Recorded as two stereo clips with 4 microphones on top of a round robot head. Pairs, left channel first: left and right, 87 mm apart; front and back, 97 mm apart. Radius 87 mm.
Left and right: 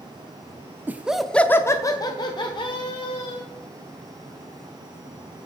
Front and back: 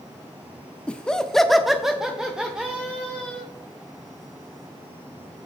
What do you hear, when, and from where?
0.9 s laughter: 65° right, 0.7 m; by 3.4 s 100° left, 1.9 m